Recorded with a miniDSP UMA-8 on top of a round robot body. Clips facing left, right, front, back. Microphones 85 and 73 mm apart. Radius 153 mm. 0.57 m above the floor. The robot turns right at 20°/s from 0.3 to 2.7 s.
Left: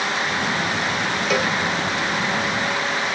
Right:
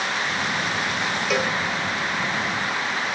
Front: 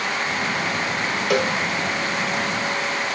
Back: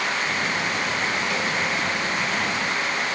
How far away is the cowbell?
About 1.1 m.